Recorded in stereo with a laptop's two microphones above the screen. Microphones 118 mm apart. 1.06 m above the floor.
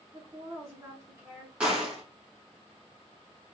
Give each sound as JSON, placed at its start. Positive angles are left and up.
{"t": 0.1, "sound": "a woman speaking", "side_deg": -25, "distance_m": 1.4}
{"t": 1.6, "sound": "a gunshot", "side_deg": -10, "distance_m": 1.3}